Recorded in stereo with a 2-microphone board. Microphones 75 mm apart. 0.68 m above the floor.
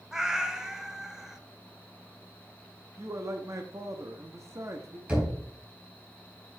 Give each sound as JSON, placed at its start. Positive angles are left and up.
{"t": 0.1, "sound": "a cat meowing", "side_deg": -5, "distance_m": 0.8}
{"t": 3.0, "sound": "a man speaking", "side_deg": -40, "distance_m": 0.9}
{"t": 5.1, "sound": "knocking", "side_deg": -15, "distance_m": 5.5}